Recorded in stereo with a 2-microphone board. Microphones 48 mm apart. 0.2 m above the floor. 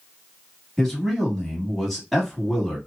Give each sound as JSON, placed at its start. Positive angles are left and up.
{"t": 0.8, "sound": "a man speaking", "side_deg": 5, "distance_m": 1.4}